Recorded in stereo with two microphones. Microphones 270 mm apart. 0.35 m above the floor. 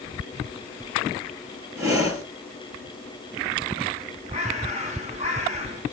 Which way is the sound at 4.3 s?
25° right (ahead or behind).